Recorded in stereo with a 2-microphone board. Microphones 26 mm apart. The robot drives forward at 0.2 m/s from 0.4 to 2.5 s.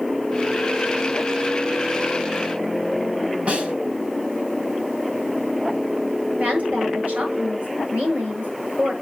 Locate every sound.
3.5 s a snare drum: 60° right (ahead or behind), 2.5 m
6.4 s a woman speaking: 75° right (ahead or behind), 7.5 m